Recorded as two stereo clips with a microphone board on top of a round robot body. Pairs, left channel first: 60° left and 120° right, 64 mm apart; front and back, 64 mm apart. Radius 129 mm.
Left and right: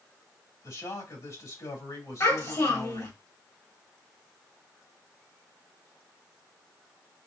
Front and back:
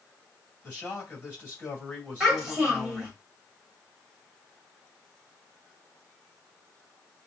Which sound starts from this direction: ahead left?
A man speaking, at 0.6 s.